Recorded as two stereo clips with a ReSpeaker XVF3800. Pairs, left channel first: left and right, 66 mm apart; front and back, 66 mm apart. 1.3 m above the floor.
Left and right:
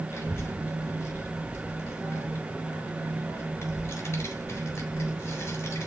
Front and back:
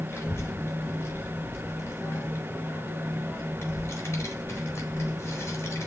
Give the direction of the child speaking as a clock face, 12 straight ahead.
10 o'clock.